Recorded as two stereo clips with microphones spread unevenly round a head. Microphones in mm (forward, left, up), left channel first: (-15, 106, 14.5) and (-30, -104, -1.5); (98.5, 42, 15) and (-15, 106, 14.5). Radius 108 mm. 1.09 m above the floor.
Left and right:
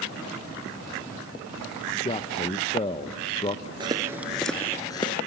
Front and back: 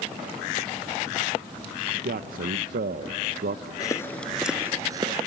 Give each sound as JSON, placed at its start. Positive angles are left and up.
{"t": 2.0, "sound": "a man speaking", "azimuth_deg": 150, "distance_m": 0.6}
{"t": 3.8, "sound": "footsteps", "azimuth_deg": -40, "distance_m": 1.1}